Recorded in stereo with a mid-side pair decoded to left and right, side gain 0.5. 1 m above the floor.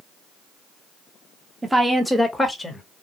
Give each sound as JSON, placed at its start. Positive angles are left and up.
{"t": 1.6, "sound": "a woman speaking", "azimuth_deg": -20, "distance_m": 0.9}